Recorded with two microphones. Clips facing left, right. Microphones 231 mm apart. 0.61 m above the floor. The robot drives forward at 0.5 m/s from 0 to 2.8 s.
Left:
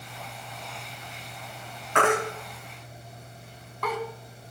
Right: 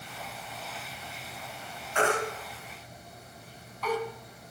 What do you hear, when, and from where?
1.9 s a baby crying: 80° left, 1.8 m; by 4.0 s 65° left (ahead or behind), 2.0 m